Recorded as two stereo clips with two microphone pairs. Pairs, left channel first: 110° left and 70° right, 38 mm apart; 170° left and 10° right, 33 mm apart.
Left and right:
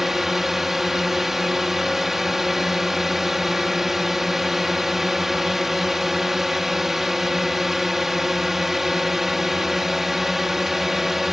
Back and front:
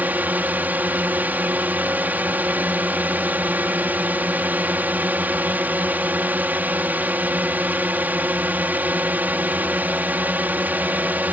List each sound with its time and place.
0.0 s a drone: 10° left